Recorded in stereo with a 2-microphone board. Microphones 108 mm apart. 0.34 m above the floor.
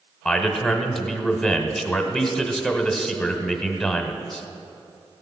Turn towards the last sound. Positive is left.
turn(degrees=5)  # may be behind; listen again after turning